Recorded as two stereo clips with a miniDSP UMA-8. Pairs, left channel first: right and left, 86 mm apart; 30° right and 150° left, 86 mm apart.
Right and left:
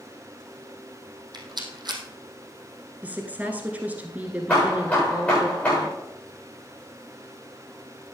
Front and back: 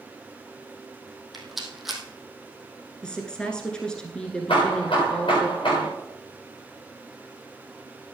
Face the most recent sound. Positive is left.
turn(degrees=-15)